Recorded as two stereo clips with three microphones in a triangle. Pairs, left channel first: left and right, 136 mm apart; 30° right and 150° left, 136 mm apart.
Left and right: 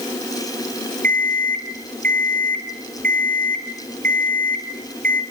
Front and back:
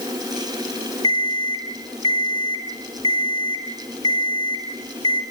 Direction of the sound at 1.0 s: 85° right.